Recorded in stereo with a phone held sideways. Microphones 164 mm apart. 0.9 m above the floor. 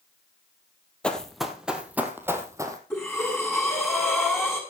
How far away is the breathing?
About 6 m.